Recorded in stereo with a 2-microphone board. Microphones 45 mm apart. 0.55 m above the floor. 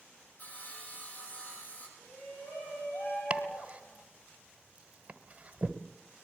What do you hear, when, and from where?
0.4 s sawing: 35° left (ahead or behind), 9 m
2.0 s a shout: 55° left (ahead or behind), 4.5 m
3.3 s chopping: 30° right (ahead or behind), 1.4 m